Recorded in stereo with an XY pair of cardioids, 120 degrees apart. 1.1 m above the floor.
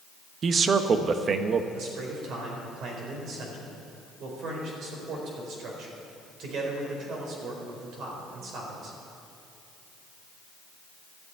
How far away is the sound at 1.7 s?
About 4.5 m.